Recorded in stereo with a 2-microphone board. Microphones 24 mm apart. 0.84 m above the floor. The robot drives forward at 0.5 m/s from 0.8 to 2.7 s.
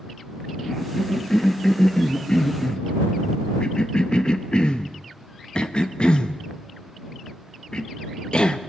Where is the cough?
20° left (ahead or behind), 1.4 m; by 8.6 s 40° left (ahead or behind), 0.8 m.